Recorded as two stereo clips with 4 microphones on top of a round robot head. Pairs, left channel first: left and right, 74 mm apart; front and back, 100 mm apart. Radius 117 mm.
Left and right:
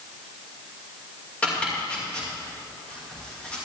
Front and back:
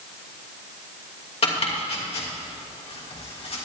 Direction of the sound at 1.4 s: 15° left.